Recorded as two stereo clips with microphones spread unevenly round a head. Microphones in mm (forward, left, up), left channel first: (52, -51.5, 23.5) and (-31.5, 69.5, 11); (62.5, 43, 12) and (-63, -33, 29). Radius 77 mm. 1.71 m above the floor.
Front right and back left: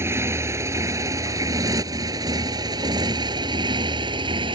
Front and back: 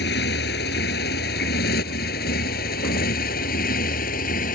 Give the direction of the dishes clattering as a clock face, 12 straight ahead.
No dishes clattering in this recording.